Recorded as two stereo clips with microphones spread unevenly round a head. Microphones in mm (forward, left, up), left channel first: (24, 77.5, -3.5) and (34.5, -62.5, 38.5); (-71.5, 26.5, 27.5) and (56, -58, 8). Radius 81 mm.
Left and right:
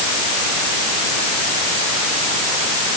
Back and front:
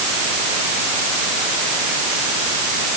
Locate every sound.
Only background noise.